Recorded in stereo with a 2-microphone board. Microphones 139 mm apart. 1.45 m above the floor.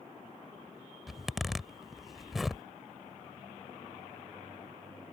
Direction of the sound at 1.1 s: Centre (ahead or behind).